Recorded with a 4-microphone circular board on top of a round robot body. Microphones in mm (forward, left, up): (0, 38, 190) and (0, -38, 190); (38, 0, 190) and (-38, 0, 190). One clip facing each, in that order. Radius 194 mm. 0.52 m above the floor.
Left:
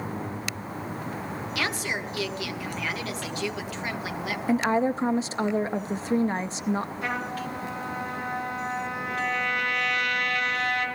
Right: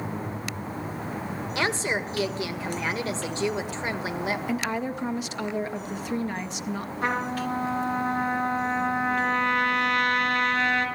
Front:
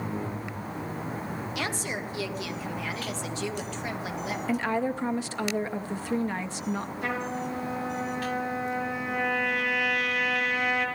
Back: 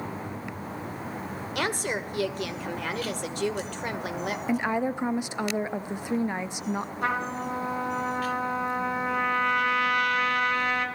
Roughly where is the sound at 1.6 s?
Behind right.